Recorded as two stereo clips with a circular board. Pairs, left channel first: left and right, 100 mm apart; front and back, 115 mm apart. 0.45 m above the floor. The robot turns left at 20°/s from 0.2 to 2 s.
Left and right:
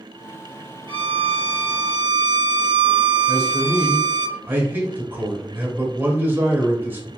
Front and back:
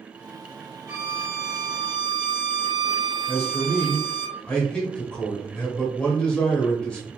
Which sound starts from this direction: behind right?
A violin, at 0.9 s.